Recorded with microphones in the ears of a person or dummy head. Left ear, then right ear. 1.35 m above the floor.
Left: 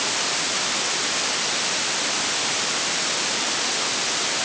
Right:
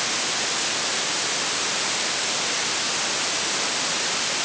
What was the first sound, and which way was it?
Only background noise.